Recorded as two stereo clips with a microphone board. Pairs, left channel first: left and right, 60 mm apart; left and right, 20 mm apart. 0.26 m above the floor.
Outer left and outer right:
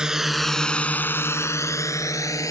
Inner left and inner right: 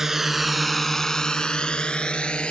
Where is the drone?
15° right (ahead or behind); by 2.5 s 75° left (ahead or behind).